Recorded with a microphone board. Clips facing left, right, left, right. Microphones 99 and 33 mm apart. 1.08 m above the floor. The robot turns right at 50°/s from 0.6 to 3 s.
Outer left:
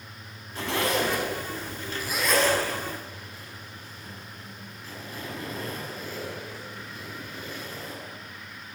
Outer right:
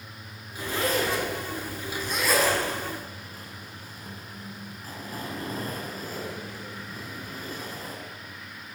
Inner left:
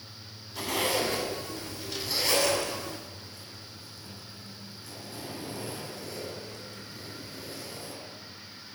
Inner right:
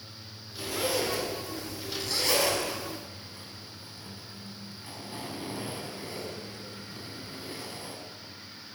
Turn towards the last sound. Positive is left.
turn(degrees=-40)  # may be behind; listen again after turning